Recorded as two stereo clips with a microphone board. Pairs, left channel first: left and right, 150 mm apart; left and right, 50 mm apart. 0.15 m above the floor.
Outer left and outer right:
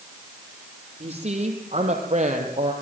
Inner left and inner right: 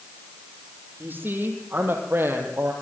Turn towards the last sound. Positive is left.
turn(degrees=-65)  # may be behind; listen again after turning